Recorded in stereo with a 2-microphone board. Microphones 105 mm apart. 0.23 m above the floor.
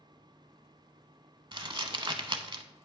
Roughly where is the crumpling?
Right.